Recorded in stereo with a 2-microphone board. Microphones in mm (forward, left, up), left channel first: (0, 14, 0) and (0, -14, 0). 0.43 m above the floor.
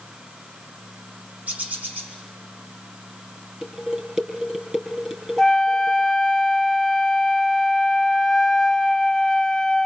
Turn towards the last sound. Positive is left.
turn(degrees=10)  # may be behind; listen again after turning